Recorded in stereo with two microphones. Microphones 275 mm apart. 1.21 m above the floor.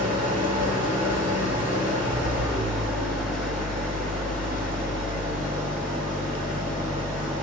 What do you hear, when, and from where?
0.0 s an engine running: 30° right (ahead or behind), 1.9 m